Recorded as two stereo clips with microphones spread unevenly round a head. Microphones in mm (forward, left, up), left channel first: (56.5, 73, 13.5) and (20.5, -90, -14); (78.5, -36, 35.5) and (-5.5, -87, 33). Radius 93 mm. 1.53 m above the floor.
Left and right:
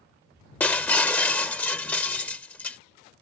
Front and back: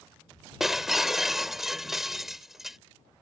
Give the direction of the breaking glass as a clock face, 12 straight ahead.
8 o'clock.